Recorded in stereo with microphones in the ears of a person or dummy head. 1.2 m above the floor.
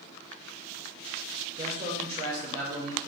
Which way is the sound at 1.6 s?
25° right (ahead or behind).